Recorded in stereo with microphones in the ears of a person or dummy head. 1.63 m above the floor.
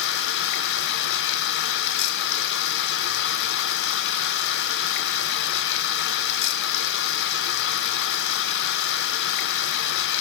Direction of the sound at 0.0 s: 65° left (ahead or behind).